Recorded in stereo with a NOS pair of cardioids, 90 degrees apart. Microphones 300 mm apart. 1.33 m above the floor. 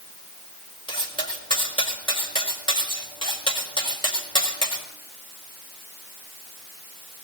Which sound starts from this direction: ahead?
Cutlery clinking, at 0.9 s.